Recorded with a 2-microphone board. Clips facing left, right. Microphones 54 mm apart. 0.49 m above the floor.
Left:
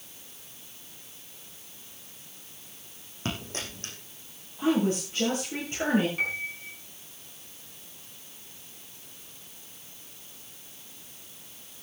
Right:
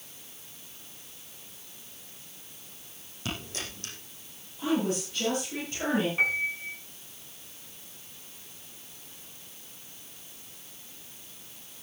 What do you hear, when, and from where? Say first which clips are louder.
3.2 s a dropped coin: left 2 dB; 40° left (ahead or behind), 6.5 m
4.6 s a woman speaking: left 3 dB; 40° left (ahead or behind), 9.5 m
6.2 s a piano: right 4 dB; 20° right (ahead or behind), 5 m